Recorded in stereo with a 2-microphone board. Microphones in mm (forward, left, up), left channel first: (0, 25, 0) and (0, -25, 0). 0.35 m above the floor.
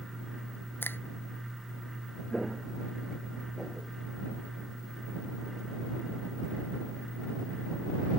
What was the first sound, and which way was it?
A finger snap, 45° left (ahead or behind).